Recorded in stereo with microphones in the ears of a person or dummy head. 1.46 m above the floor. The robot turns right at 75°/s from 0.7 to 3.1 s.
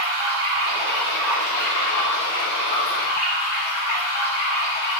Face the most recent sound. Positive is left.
turn(degrees=135)